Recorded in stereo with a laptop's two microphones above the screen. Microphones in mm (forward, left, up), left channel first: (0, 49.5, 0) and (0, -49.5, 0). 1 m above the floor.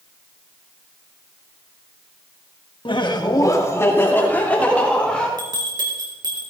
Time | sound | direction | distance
2.9 | laughter | 55° left (ahead or behind) | 1.5 m
5.4 | a bell | 40° right (ahead or behind) | 3.5 m